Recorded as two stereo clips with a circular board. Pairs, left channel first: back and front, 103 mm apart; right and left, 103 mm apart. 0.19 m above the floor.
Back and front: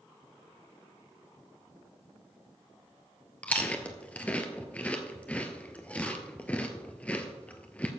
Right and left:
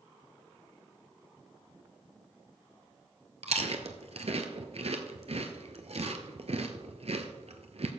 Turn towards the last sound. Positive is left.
turn(degrees=100)